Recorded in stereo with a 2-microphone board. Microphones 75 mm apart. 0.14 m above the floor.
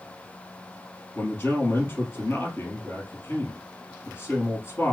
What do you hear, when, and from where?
1.1 s a man speaking: 35° left (ahead or behind), 3 m